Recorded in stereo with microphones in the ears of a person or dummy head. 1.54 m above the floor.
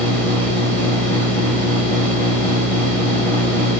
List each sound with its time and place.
0.0 s a machine running: 10° left (ahead or behind), 1.9 m